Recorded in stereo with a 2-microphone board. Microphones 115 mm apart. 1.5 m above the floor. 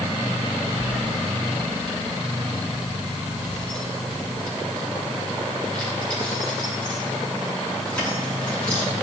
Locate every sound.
0.8 s keys jangling: 15° right (ahead or behind), 1.4 m; by 8.9 s 10° left (ahead or behind), 9.5 m